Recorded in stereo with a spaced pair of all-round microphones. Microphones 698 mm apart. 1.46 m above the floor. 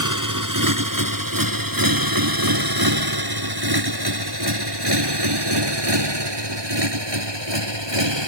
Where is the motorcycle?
25° right (ahead or behind); by 8.3 s 40° right (ahead or behind).